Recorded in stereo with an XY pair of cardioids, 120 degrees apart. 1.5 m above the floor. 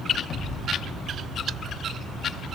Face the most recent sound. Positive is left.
turn(degrees=50)